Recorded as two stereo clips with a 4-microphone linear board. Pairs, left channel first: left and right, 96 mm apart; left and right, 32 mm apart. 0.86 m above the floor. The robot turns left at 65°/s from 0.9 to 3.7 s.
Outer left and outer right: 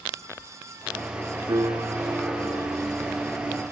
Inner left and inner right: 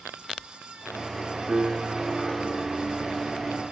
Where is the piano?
55° right, 2.5 m; by 2.8 s 135° right, 2.5 m.